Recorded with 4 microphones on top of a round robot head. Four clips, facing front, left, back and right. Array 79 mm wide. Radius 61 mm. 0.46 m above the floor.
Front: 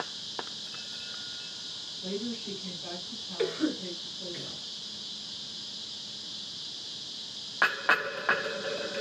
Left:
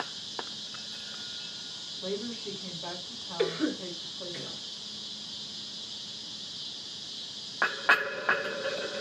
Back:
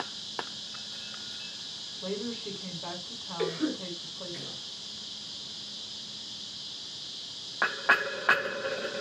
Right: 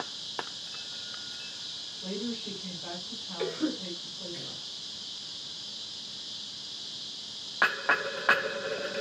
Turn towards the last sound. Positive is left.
turn(degrees=75)